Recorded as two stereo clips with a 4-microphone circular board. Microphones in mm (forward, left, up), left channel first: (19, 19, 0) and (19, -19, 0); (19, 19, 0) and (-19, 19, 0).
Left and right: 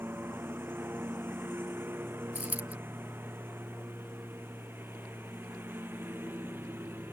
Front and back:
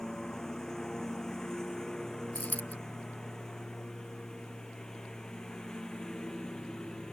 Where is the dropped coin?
45° right.